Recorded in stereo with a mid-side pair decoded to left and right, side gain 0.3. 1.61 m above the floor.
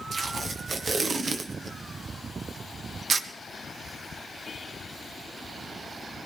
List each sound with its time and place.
0.1 s tape being pulled: 60° right, 1.3 m